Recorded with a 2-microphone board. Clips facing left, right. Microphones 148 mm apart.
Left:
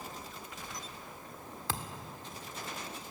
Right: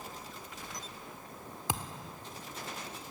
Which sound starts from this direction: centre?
A thud, at 1.7 s.